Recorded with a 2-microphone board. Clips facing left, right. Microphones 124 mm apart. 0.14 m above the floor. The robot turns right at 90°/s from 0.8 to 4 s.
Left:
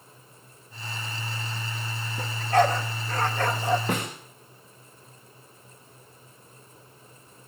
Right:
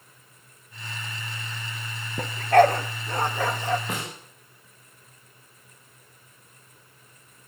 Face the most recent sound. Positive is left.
turn(degrees=75)  # may be behind; listen again after turning